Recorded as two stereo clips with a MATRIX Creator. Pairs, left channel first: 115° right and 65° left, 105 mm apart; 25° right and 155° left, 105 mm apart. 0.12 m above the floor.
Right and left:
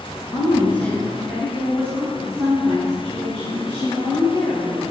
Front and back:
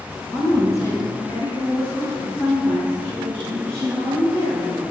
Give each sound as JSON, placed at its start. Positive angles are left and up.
{"t": 0.3, "sound": "a woman speaking", "azimuth_deg": -80, "distance_m": 2.0}